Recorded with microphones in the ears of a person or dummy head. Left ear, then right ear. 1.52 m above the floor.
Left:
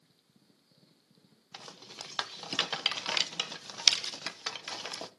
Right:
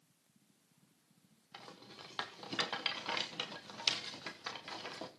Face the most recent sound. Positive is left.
turn(degrees=30)  # may be behind; listen again after turning